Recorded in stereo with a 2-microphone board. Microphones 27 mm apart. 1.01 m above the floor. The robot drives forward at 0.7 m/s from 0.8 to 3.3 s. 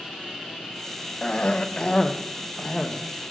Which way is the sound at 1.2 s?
40° left (ahead or behind).